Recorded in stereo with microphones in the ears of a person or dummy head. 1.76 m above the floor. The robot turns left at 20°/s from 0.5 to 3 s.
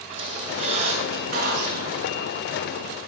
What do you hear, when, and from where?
0.1 s a squeak: 35° right, 6.5 m; by 2.4 s 70° right, 6.5 m